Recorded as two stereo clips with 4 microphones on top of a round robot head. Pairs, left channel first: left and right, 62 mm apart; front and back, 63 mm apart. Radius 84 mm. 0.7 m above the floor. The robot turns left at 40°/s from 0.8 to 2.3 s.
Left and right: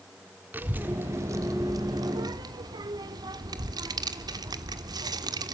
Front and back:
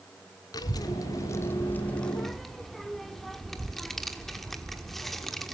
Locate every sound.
0.5 s a child speaking: 25° right, 1.3 m; by 5.5 s 85° right, 1.3 m